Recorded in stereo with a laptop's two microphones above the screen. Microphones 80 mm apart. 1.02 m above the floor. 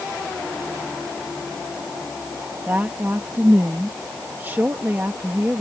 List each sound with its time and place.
2.7 s a woman speaking: 30° right (ahead or behind)